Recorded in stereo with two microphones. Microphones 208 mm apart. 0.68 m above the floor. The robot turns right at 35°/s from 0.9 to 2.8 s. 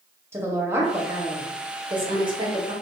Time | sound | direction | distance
0.3 | a woman speaking | 10° right (ahead or behind) | 0.9 m